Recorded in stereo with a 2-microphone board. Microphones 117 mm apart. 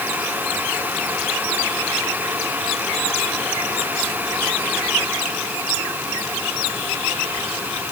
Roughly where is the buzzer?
No buzzer in this recording.